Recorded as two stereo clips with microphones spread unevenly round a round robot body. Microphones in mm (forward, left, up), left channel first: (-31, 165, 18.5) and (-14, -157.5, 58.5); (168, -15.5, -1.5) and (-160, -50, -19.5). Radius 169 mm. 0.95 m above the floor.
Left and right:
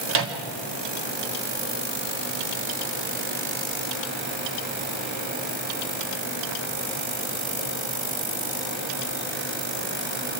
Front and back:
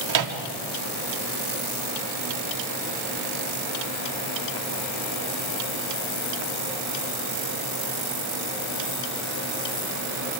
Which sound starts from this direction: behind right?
A microwave, at 0.1 s.